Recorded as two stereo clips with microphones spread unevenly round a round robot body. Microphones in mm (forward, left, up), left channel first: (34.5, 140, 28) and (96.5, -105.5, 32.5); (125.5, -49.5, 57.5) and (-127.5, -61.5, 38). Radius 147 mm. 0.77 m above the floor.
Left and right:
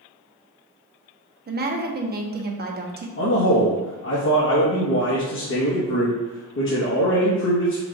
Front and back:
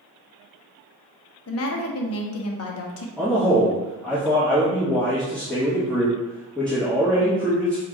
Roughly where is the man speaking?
Left.